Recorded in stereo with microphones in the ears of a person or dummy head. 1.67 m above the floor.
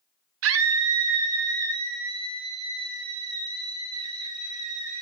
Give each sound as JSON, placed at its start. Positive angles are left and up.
{"t": 0.4, "sound": "a scream", "side_deg": -65, "distance_m": 0.6}